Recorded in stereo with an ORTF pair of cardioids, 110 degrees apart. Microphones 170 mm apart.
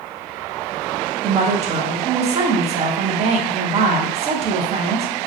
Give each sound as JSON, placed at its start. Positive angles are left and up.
{"t": 1.2, "sound": "a woman speaking", "azimuth_deg": -40, "distance_m": 0.6}